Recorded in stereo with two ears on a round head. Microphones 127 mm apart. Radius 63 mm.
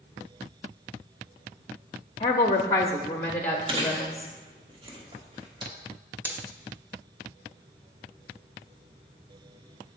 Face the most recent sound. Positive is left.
turn(degrees=-15)  # may be behind; listen again after turning